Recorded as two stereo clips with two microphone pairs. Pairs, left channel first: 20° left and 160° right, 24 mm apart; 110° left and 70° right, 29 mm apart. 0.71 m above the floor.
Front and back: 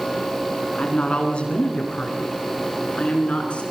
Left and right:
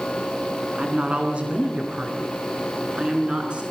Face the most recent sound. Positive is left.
turn(degrees=-20)